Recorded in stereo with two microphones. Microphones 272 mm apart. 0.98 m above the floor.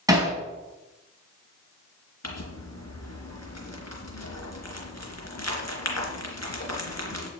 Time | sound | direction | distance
0.1 | hammering | 10° right (ahead or behind) | 4 m
2.2 | crumpling | 70° left (ahead or behind) | 3 m